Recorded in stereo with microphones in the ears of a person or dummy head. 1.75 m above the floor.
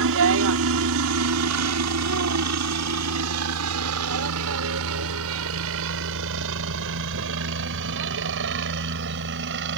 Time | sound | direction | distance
0.0 | a helicopter | 65° right (ahead or behind) | ?